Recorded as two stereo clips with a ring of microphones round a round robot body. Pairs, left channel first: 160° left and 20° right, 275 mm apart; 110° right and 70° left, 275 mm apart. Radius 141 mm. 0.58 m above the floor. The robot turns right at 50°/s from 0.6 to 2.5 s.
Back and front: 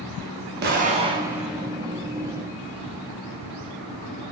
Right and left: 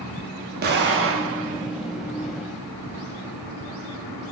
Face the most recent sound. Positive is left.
turn(degrees=115)